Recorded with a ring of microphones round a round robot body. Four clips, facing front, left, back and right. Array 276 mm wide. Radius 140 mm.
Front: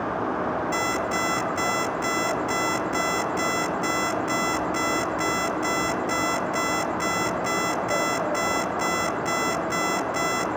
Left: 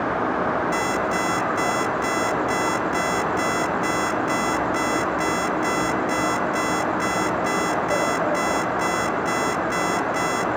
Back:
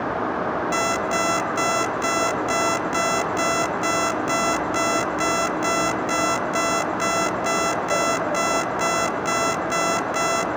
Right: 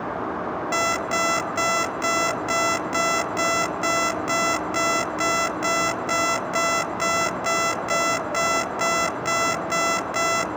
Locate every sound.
0.7 s an alarm clock: 125° right, 2.5 m